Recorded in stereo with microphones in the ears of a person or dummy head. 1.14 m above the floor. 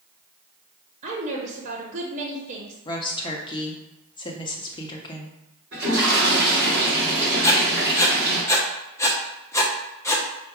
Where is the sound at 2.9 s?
30° left (ahead or behind), 0.7 m.